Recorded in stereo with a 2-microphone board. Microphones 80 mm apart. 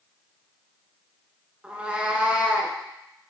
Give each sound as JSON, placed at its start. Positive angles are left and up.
{"t": 1.6, "sound": "a cat meowing", "side_deg": -15, "distance_m": 0.8}